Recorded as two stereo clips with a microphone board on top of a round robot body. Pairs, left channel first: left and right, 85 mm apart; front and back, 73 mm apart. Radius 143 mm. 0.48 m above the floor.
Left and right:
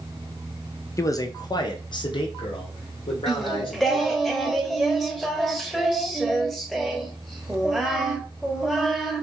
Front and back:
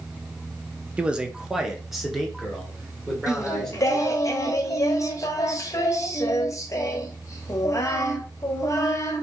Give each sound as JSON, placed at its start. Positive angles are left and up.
{"t": 1.0, "sound": "a man speaking", "azimuth_deg": 115, "distance_m": 0.8}
{"t": 3.3, "sound": "singing", "azimuth_deg": 0, "distance_m": 1.1}